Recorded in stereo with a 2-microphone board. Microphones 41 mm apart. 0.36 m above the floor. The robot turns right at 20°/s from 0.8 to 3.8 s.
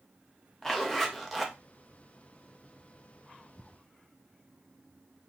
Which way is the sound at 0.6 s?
10° left (ahead or behind).